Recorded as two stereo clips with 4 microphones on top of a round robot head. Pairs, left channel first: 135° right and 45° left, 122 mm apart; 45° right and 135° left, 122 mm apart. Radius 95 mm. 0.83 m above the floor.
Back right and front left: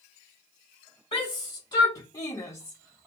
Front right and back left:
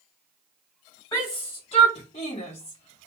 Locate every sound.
1.1 s a shout: 95° right, 1.6 m; by 3.1 s 55° right, 1.2 m